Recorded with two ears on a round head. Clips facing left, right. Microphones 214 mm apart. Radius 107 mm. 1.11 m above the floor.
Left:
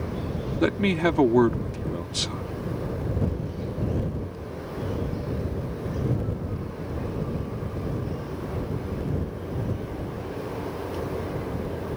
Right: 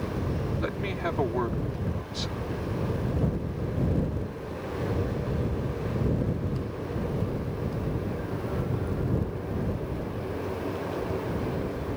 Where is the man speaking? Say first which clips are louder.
Left 9 dB; 70° left (ahead or behind).